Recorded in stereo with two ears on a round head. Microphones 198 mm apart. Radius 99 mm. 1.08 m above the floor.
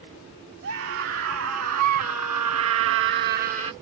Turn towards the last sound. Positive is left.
turn(degrees=-25)  # may be behind; listen again after turning